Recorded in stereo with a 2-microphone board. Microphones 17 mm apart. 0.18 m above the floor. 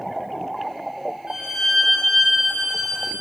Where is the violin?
40° right (ahead or behind), 10 m.